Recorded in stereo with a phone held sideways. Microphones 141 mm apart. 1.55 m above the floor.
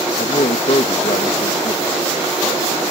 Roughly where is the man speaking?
Left.